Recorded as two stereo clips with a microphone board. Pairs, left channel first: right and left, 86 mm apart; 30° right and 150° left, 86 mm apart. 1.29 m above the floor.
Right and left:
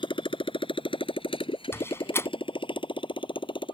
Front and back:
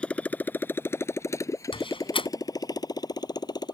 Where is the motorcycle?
110° right; by 3.7 s 70° right.